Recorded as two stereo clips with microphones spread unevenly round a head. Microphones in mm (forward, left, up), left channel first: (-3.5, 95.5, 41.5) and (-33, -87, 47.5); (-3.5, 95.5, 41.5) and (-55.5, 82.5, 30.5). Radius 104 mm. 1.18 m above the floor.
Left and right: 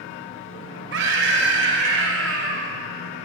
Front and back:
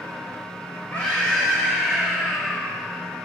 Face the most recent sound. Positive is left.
turn(degrees=-75)